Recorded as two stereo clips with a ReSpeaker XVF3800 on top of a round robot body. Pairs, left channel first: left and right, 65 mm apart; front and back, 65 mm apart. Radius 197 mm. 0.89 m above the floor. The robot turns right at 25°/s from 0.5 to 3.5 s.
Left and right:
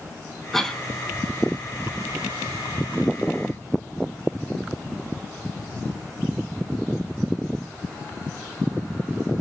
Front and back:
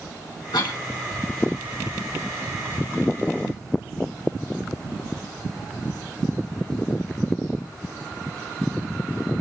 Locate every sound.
0.5 s a cough: 5° left, 2.5 m; by 0.8 s 15° left, 2.5 m